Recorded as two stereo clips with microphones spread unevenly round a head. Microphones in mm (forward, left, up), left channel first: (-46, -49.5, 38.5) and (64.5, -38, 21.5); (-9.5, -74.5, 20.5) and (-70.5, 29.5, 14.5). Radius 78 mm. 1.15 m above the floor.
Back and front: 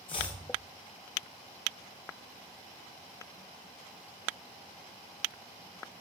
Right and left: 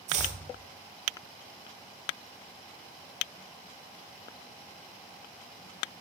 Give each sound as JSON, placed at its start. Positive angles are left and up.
{"t": 0.1, "sound": "chopping", "azimuth_deg": 135, "distance_m": 1.3}